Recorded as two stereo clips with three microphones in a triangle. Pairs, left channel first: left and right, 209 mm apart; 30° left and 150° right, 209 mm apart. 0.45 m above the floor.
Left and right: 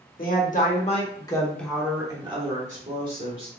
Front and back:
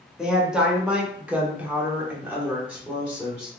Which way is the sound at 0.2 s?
125° left.